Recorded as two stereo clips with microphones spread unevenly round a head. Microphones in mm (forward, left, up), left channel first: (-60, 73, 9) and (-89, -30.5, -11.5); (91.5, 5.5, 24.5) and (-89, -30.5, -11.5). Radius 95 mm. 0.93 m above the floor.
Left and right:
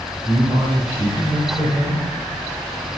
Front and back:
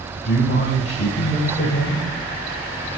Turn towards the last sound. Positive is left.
turn(degrees=-25)